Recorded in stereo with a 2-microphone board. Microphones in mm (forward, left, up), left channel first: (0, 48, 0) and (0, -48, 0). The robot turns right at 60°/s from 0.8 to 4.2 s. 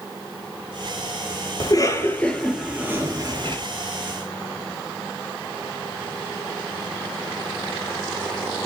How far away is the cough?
About 3.5 m.